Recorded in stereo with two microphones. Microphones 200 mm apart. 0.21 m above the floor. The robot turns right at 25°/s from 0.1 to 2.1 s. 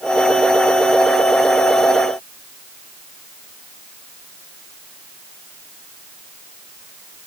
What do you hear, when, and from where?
Only background noise.